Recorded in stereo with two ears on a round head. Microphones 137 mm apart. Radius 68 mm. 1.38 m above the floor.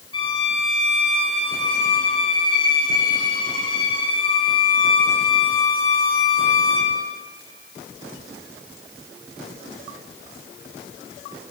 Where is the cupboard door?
No cupboard door in this recording.